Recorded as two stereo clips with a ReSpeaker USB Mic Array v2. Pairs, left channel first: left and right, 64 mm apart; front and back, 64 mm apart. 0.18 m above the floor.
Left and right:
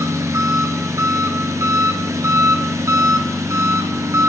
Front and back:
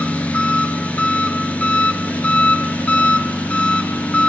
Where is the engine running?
65° right, 1.1 m.